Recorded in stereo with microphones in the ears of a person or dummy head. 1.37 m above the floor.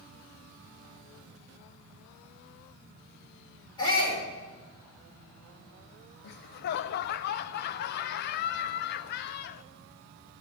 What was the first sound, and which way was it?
A shout, 25° left (ahead or behind).